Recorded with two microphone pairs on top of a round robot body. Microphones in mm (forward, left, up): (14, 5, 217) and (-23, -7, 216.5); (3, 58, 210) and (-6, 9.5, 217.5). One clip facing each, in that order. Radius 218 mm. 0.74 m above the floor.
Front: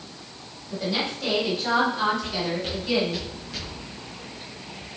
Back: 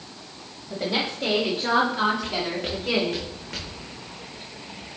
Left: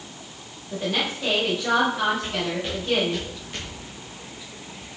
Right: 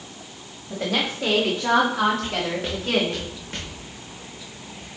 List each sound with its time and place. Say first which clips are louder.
0.7 s a woman speaking: back 1 dB, right 1 dB; 100° right, 3.5 m; by 3.2 s 130° right, 3 m
2.2 s footsteps: even, right 1 dB; 110° right, 2.5 m; by 3.8 s 130° right, 3 m